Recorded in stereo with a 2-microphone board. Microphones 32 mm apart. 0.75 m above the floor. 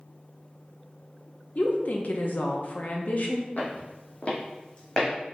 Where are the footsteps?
60° left (ahead or behind), 1.4 m; by 5.1 s 25° left (ahead or behind), 1.7 m.